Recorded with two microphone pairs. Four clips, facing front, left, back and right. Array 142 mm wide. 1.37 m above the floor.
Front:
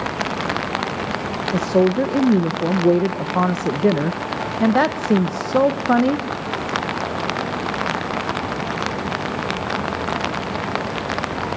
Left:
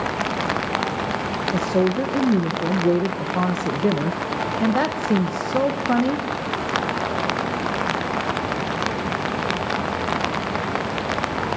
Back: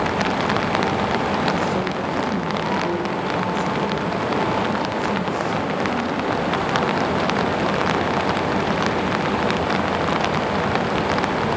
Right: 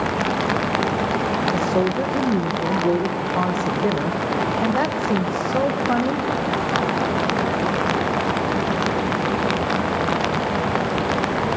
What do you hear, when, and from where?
1.5 s a woman speaking: 5° right, 0.8 m